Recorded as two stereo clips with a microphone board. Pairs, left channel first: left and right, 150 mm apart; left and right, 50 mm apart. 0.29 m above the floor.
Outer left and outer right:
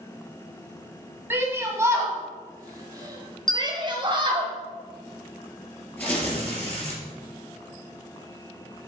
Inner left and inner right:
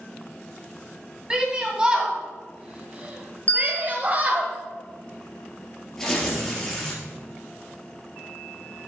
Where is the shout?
15° right (ahead or behind), 2.5 m; by 4.5 s 35° right (ahead or behind), 1.6 m.